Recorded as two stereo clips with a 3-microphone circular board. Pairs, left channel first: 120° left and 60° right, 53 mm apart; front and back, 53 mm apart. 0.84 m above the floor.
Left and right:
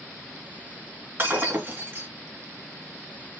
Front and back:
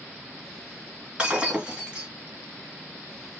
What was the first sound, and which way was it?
Breaking glass, 110° right.